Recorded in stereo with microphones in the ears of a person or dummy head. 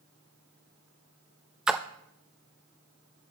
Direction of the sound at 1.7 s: 5° right (ahead or behind).